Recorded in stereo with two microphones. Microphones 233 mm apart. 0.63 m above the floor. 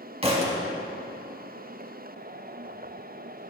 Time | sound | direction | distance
0.2 | a thud | 25° right (ahead or behind) | 1.0 m